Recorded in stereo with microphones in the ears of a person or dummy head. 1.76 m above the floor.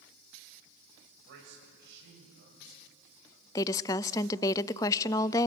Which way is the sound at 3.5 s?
20° left (ahead or behind).